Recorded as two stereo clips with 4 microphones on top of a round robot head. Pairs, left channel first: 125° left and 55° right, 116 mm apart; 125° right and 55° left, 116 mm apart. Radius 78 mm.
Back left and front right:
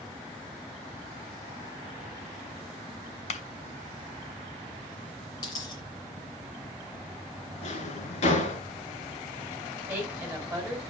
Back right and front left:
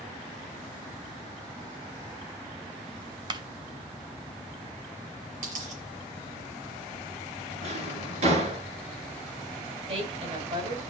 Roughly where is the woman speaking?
Ahead.